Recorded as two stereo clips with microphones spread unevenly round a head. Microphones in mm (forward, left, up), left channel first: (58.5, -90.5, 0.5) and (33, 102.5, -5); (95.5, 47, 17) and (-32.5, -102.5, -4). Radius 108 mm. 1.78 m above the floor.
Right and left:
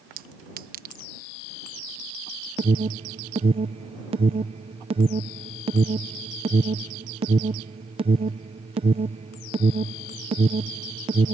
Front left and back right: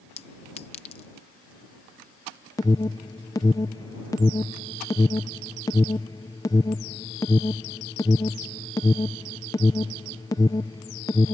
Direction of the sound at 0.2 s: 90° left.